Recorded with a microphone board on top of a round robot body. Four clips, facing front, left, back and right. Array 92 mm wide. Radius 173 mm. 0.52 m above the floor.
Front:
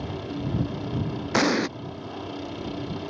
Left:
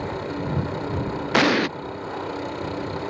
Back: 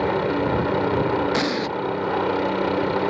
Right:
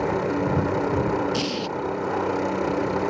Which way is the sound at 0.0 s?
160° right.